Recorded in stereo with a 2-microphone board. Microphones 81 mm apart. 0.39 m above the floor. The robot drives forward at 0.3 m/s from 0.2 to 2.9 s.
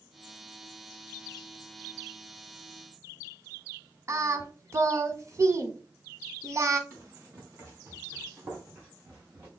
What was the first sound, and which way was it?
Singing, 35° right (ahead or behind).